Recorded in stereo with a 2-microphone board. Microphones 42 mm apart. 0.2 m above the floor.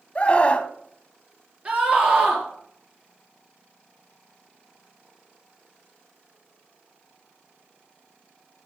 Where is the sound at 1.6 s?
30° right (ahead or behind), 4 m.